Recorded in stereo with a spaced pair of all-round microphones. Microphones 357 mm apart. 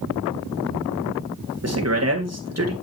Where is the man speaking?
40° right (ahead or behind), 2.5 m.